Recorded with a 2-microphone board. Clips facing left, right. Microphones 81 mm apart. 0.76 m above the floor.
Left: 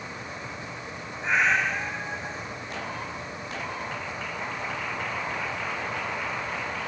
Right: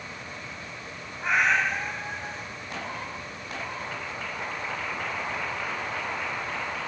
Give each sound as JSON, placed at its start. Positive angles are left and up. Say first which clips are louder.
{"t": 1.2, "sound": "a cat meowing", "louder": "even", "side_deg": -70, "distance_m": 1.6}